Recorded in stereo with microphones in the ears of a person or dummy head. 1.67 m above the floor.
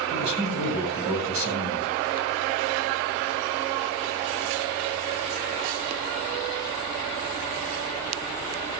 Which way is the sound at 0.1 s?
70° right (ahead or behind).